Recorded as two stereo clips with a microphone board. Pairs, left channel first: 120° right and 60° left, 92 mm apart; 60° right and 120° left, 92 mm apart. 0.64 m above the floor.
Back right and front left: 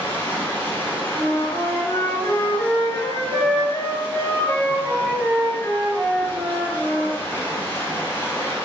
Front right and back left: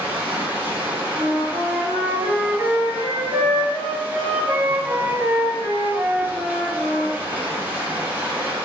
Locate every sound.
0.0 s running water: 175° right, 0.7 m
1.1 s a flute: straight behind, 1.6 m